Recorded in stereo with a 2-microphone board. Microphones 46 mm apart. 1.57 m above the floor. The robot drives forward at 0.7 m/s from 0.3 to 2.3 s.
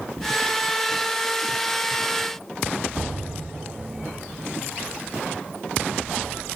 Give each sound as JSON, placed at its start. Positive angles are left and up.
{"t": 3.0, "sound": "an explosion", "side_deg": -10, "distance_m": 1.9}